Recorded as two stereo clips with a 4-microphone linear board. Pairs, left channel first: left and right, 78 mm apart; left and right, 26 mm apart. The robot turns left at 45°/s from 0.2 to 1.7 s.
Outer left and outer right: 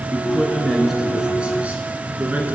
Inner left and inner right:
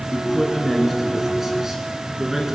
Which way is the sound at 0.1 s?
10° left (ahead or behind).